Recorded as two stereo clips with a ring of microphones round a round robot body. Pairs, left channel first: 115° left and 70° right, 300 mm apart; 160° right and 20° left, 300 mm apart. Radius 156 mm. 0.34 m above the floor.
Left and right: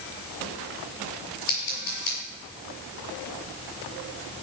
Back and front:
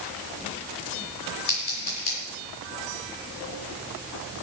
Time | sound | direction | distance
1.5 | scissors | 155° left | 6.5 m